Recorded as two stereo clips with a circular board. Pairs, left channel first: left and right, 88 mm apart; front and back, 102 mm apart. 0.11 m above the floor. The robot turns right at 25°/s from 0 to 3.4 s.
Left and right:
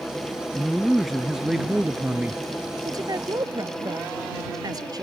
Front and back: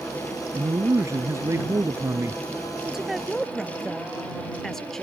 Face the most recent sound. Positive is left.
turn(degrees=-85)